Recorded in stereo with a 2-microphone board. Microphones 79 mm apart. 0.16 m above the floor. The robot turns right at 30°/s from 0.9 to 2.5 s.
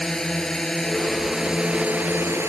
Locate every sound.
0.0 s a drone: 170° left; by 2.5 s 140° right